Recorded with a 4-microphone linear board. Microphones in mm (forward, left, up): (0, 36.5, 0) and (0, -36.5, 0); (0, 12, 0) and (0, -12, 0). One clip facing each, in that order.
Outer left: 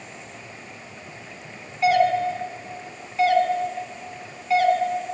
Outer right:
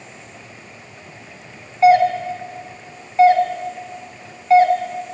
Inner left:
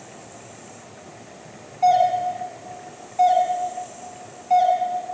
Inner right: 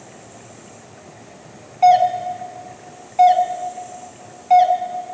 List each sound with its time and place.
1.8 s a doorbell: 35° right (ahead or behind), 1.7 m